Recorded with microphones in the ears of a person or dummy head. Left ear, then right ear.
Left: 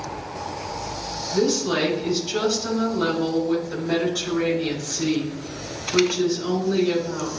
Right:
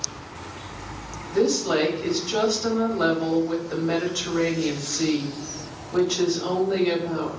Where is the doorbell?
No doorbell in this recording.